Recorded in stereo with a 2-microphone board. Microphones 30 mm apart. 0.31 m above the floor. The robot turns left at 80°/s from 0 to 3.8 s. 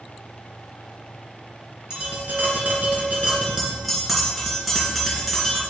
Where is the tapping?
20° right, 3 m; by 5.6 s 175° right, 3 m.